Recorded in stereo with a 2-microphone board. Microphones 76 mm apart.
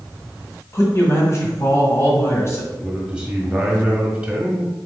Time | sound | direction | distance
0.7 | a man speaking | 40° left (ahead or behind) | 1.4 m
2.7 | a man speaking | 10° right (ahead or behind) | 1.2 m